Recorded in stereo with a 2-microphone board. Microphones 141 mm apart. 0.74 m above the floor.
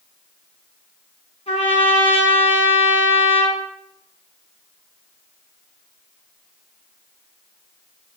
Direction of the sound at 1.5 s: 50° left (ahead or behind).